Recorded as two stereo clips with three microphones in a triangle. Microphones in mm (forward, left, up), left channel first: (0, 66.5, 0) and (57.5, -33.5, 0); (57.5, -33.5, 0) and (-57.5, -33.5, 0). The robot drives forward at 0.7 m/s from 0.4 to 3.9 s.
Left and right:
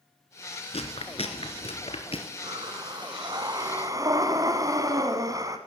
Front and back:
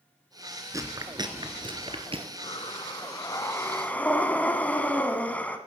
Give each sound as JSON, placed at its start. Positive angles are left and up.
{"t": 0.7, "sound": "chewing", "azimuth_deg": 125, "distance_m": 1.3}
{"t": 2.4, "sound": "breathing", "azimuth_deg": -25, "distance_m": 1.8}